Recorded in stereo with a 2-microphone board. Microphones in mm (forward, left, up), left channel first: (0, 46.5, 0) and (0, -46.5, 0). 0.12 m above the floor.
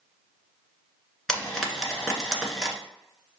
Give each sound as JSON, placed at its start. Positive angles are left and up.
{"t": 1.3, "sound": "frying", "side_deg": 5, "distance_m": 1.5}